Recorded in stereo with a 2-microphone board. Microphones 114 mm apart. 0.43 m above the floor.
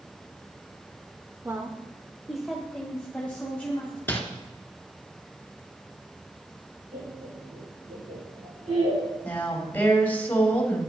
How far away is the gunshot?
I don't hear a gunshot.